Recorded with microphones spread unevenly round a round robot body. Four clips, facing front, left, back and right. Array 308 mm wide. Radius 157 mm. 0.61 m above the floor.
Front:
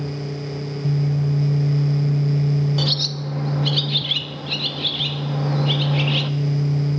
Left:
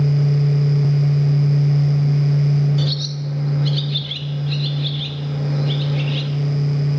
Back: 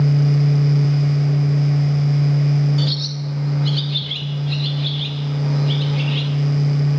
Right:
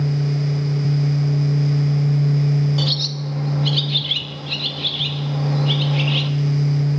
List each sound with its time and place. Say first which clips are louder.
2.8 s a bird: left 1 dB, back 2 dB; 15° left, 0.8 m